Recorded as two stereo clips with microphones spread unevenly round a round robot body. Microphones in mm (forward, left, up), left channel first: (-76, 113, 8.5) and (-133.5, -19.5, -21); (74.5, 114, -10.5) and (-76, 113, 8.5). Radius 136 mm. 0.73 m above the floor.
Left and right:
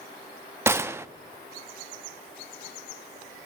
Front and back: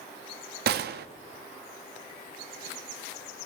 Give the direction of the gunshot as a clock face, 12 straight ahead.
6 o'clock.